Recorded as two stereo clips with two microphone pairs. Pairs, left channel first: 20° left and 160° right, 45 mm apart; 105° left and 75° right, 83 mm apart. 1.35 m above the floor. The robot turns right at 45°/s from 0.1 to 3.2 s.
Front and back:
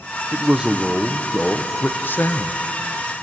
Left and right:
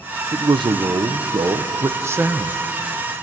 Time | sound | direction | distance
0.3 | a man speaking | 100° right | 0.9 m